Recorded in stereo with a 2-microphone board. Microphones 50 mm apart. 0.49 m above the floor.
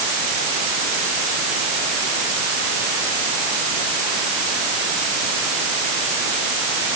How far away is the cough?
I don't hear a cough.